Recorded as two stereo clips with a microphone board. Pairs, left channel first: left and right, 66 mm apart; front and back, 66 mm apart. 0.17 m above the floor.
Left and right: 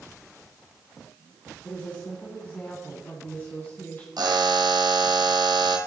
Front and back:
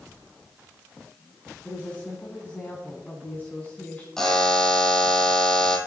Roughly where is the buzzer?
Right.